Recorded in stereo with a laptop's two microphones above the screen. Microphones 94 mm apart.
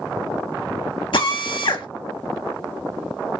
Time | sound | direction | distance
1.1 | a drill | 60° left (ahead or behind) | 0.8 m